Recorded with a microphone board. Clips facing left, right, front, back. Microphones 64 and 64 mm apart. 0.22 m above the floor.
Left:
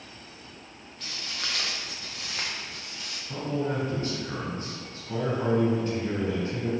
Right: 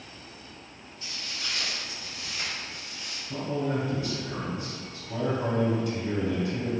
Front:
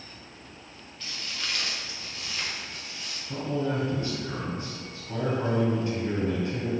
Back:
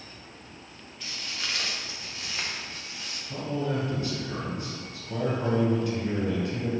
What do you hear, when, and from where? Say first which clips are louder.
1.0 s footsteps: left 2 dB, even; 95° left, 1.0 m; by 3.2 s 115° left, 2 m
3.3 s a man speaking: even, front 1 dB; 50° left, 1.8 m